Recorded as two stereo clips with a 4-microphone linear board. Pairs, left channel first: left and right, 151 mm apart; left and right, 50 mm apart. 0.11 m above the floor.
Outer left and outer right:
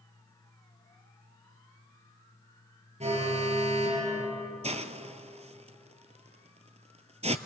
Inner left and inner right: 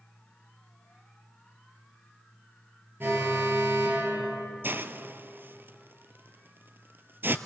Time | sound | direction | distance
3.0 | an alarm | 45° right (ahead or behind) | 3.5 m
4.6 | a hiss | 45° right (ahead or behind) | 0.7 m